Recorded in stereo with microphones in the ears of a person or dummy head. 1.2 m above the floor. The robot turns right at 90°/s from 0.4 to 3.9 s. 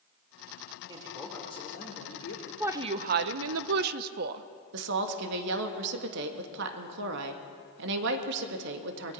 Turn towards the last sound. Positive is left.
turn(degrees=-65)  # may be behind; listen again after turning